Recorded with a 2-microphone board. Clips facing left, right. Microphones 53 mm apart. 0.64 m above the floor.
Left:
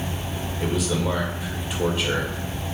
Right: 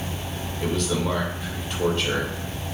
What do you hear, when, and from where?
0.6 s a man speaking: 10° left (ahead or behind), 2 m